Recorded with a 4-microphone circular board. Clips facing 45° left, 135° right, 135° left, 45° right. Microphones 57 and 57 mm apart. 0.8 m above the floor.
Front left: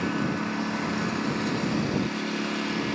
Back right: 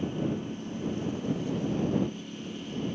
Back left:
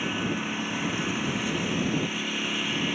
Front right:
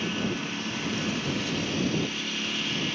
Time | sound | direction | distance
0.0 | a lawn mower | 60° left | ?